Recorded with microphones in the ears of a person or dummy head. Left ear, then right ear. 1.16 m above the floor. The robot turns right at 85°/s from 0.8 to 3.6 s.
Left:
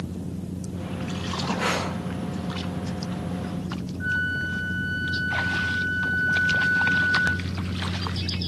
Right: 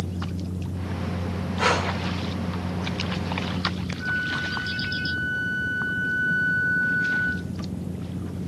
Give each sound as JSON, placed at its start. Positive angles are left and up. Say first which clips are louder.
{"t": 1.6, "sound": "breathing", "louder": "right 5 dB", "side_deg": -20, "distance_m": 4.0}
{"t": 4.0, "sound": "a flute", "louder": "left 1 dB", "side_deg": 10, "distance_m": 0.5}